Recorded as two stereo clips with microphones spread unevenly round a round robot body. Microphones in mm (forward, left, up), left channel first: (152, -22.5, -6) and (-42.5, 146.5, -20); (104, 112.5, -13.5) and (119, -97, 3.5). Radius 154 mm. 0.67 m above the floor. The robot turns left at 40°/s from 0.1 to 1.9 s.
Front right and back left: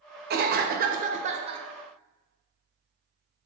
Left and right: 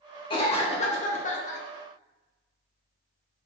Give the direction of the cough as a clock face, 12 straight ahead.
7 o'clock.